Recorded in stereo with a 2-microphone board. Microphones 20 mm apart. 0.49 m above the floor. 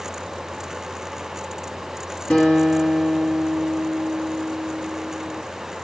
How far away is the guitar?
About 2 m.